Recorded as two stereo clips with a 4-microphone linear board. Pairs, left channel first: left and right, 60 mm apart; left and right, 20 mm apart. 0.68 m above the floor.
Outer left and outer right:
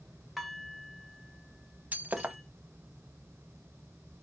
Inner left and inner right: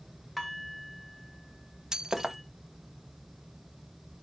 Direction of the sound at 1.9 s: 25° right (ahead or behind).